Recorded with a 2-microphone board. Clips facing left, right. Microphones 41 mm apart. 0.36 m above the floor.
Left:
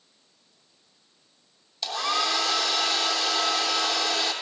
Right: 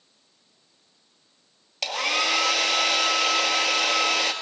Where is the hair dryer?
85° right, 1.7 m.